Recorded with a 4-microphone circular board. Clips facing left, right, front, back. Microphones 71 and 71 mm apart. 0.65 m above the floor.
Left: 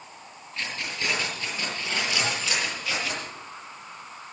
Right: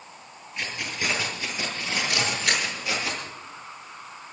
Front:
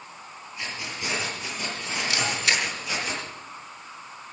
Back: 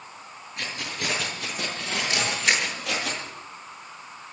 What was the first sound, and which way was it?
Keys jangling, 165° right.